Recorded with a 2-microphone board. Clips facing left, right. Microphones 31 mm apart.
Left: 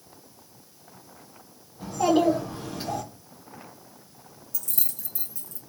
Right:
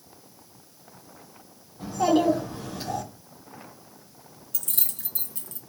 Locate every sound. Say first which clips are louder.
1.8 s a child speaking: even; 15° right (ahead or behind), 1.0 m; by 3.0 s 25° left (ahead or behind), 0.8 m
4.5 s keys jangling: right 3 dB; 55° right (ahead or behind), 0.6 m